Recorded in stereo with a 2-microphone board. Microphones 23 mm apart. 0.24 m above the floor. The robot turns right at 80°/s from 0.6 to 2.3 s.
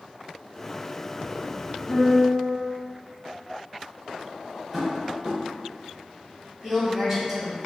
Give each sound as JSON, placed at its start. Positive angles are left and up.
{"t": 1.9, "sound": "a piano", "azimuth_deg": 100, "distance_m": 1.2}
{"t": 4.7, "sound": "tapping", "side_deg": -20, "distance_m": 1.3}
{"t": 6.6, "sound": "a woman speaking", "side_deg": -10, "distance_m": 1.7}